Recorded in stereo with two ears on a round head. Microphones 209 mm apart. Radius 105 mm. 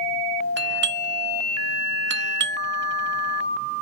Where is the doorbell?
50° right (ahead or behind).